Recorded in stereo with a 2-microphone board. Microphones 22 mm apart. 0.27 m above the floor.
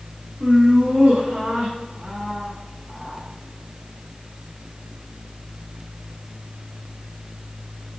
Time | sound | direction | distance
0.4 | laughter | 70° right (ahead or behind) | 3.5 m